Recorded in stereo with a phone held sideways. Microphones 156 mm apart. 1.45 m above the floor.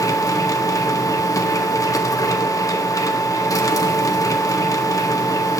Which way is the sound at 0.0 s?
20° left (ahead or behind).